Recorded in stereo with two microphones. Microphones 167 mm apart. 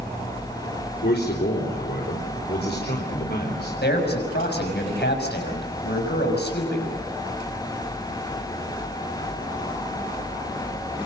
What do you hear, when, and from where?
1.0 s a man speaking: 75° left (ahead or behind), 3.5 m
3.8 s a man speaking: 85° left, 6 m